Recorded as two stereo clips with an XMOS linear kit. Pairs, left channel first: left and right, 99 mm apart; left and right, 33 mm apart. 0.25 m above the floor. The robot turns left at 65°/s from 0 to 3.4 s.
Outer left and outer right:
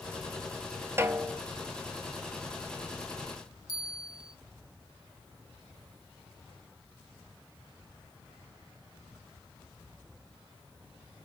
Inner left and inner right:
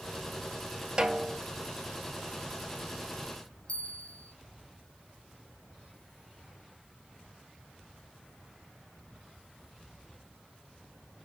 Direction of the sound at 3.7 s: 40° left (ahead or behind).